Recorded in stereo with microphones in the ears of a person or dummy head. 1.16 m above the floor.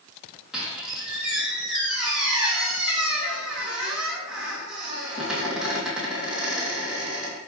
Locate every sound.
0.5 s a squeak: centre (ahead or behind), 3 m